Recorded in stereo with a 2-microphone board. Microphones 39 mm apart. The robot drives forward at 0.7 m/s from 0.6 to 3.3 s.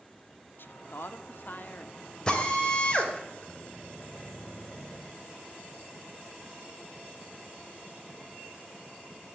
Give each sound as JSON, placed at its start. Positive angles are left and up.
{"t": 0.6, "sound": "a woman speaking", "side_deg": 60, "distance_m": 1.0}
{"t": 2.3, "sound": "a drill", "side_deg": 20, "distance_m": 2.5}